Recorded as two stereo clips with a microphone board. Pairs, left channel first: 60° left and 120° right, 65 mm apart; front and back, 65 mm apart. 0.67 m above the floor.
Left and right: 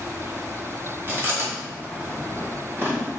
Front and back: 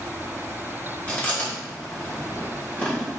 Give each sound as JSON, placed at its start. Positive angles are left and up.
{"t": 1.1, "sound": "chewing", "azimuth_deg": -70, "distance_m": 3.0}